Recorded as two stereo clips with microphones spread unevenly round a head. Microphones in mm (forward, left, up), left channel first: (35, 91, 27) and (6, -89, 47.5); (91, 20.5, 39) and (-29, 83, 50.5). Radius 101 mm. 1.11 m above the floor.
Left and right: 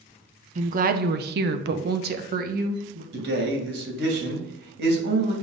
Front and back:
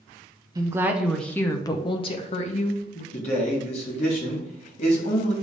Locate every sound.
0.6 s a woman speaking: 145° right, 0.8 m; by 3.0 s 55° right, 1.4 m
3.1 s a man speaking: 75° right, 2.5 m